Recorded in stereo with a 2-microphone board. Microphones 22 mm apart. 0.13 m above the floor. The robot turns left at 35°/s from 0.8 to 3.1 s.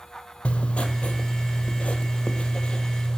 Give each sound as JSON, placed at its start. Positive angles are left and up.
{"t": 0.5, "sound": "writing", "azimuth_deg": 110, "distance_m": 0.8}